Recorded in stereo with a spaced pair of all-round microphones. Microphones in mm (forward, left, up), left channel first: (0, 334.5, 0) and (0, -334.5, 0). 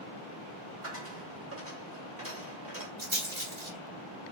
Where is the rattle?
45° right (ahead or behind), 1.9 m.